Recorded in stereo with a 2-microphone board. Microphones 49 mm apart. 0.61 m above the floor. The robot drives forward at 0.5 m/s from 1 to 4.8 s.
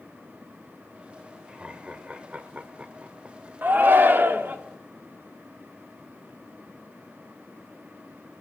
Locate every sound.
1.5 s laughter: 25° right (ahead or behind), 2 m; by 3.5 s 45° right (ahead or behind), 1.3 m
3.6 s a shout: 45° right (ahead or behind), 1.3 m; by 4.6 s 50° right (ahead or behind), 1.3 m